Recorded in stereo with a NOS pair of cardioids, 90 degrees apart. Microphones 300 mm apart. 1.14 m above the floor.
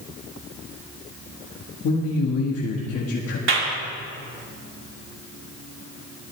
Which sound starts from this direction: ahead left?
A man speaking, at 1.8 s.